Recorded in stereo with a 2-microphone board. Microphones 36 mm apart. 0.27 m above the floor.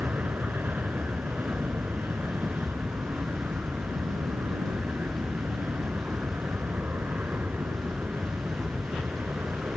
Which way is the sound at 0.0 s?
60° right (ahead or behind).